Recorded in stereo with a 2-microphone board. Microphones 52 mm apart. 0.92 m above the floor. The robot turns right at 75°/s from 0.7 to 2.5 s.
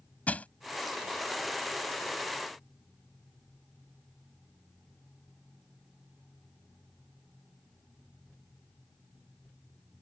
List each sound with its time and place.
0.3 s crushing: 25° left (ahead or behind)